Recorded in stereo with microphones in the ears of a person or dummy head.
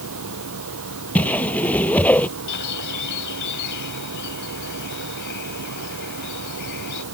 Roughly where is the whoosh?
Centre.